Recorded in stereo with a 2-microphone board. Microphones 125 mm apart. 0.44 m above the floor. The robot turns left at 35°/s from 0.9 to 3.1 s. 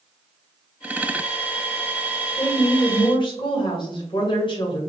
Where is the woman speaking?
25° left (ahead or behind), 1.9 m; by 4.8 s 40° left (ahead or behind), 1.9 m.